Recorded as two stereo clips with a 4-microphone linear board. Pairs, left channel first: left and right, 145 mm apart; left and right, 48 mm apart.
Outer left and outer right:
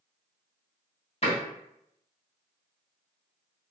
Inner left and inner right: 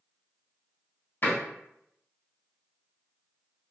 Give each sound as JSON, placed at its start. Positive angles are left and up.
{"t": 1.2, "sound": "a door slam", "side_deg": 45, "distance_m": 1.1}